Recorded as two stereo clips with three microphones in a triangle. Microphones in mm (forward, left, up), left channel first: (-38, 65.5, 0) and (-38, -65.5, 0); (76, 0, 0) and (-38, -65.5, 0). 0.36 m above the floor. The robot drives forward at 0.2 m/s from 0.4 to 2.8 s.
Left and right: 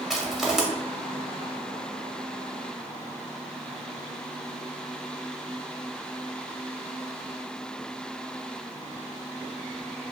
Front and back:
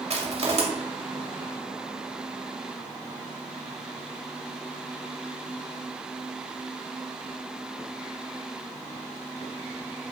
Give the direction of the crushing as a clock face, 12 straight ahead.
6 o'clock.